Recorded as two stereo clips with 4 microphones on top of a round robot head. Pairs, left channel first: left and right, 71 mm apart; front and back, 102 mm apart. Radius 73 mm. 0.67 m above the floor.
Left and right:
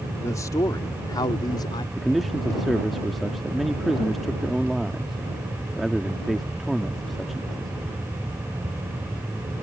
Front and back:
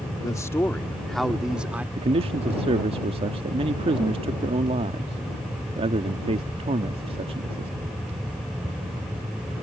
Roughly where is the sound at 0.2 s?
Ahead left.